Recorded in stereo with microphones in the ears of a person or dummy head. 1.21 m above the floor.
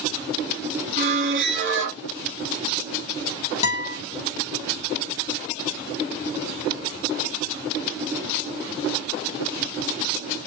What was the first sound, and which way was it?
A squeak, 45° right (ahead or behind).